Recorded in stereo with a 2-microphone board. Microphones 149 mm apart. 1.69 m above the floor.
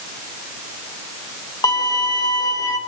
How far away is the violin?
About 2.5 m.